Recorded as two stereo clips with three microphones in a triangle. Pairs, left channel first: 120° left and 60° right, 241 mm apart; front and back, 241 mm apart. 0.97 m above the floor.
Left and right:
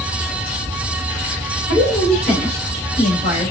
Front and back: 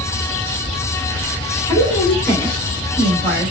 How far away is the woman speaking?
About 2.5 m.